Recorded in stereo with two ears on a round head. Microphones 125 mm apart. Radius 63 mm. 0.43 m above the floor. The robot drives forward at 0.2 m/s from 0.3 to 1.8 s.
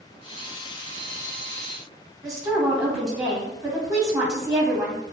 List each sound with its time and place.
2.2 s a woman speaking: 20° right (ahead or behind), 0.9 m